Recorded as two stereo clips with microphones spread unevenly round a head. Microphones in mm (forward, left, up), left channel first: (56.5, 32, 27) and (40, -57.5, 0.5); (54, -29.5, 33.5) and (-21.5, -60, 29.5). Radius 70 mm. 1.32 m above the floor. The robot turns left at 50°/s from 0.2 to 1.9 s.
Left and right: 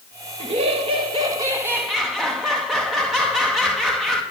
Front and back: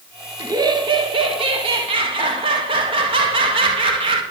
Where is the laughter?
110° right, 1.4 m; by 4.2 s 175° left, 1.4 m.